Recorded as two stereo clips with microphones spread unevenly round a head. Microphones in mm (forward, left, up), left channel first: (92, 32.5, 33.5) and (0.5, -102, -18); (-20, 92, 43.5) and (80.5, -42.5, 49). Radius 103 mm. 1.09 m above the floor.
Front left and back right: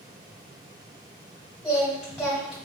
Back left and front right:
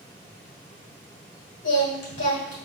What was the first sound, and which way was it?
Singing, 130° left.